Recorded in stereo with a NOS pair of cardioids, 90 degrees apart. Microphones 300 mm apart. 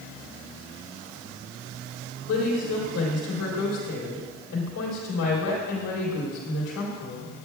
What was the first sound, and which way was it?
A woman speaking, 65° left.